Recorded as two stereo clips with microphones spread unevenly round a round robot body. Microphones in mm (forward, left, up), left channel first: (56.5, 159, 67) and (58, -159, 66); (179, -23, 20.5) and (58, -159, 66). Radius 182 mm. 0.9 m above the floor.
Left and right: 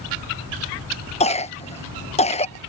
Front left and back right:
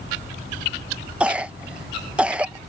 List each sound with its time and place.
1.2 s a cough: 120° left